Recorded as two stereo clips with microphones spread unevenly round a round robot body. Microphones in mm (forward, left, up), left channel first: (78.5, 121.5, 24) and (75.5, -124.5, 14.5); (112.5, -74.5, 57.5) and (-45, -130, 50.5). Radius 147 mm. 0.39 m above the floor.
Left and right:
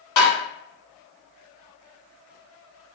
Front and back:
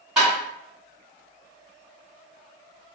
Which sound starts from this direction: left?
Tapping, at 0.2 s.